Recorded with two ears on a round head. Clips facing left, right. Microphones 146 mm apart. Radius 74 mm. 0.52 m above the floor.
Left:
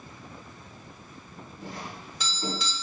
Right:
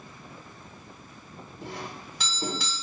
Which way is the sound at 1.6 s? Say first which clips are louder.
Right 2 dB; 55° right (ahead or behind).